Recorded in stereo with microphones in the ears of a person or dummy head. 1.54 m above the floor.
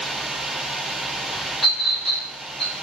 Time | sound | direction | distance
1.6 | a clink | centre (ahead or behind) | 5 m